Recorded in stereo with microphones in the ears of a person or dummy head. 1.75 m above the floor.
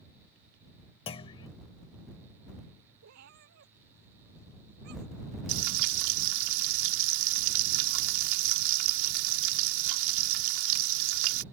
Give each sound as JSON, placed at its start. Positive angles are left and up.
{"t": 1.1, "sound": "a clunk", "side_deg": 30}
{"t": 3.0, "sound": "a cat meowing", "side_deg": -70}
{"t": 5.5, "sound": "frying", "side_deg": -80}